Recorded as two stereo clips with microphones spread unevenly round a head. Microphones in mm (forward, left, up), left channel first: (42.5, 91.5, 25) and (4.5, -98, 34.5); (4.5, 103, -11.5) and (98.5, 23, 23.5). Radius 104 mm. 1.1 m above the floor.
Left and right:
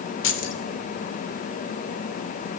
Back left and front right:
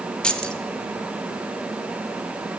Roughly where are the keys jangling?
Ahead left.